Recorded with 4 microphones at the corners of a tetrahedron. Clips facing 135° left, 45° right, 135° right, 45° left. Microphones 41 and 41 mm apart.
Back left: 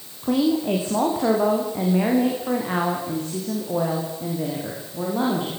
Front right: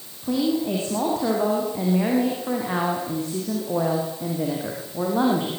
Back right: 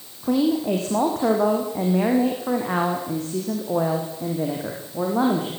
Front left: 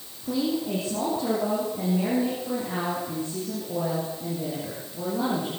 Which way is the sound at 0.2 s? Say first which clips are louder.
Back left 2 dB, back right 6 dB; 160° right.